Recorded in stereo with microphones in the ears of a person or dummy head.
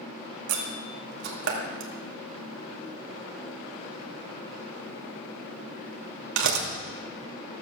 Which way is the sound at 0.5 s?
75° right (ahead or behind).